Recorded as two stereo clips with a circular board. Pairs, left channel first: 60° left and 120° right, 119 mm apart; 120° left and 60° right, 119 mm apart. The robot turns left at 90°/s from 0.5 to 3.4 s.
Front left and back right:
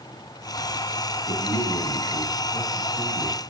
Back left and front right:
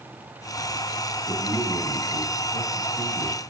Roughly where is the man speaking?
Ahead left.